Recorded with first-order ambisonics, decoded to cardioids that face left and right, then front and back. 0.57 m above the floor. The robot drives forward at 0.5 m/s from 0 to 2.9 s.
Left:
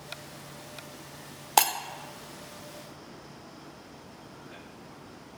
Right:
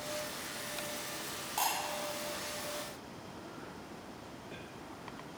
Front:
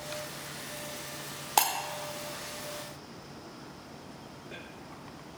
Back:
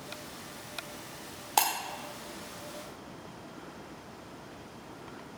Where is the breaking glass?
85° left, 0.9 m; by 1.7 s 90° left, 0.9 m.